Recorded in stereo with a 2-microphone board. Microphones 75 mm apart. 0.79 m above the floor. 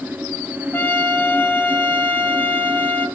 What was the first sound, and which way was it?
A trumpet, 25° left (ahead or behind).